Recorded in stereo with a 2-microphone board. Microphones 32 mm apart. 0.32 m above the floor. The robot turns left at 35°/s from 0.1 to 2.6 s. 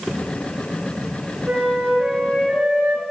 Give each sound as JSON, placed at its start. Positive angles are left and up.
{"t": 1.5, "sound": "a flute", "azimuth_deg": -115, "distance_m": 5.5}